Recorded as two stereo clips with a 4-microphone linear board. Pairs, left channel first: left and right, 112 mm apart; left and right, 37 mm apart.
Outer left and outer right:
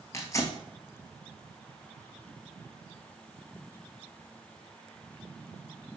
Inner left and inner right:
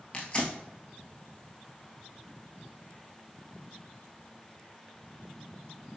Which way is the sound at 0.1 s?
25° left (ahead or behind).